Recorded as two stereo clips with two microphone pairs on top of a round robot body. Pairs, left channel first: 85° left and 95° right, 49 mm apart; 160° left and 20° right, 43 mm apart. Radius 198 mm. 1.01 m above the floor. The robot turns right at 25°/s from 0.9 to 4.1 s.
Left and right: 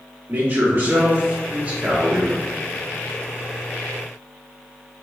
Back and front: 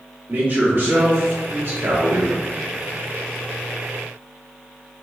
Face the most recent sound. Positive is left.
turn(degrees=25)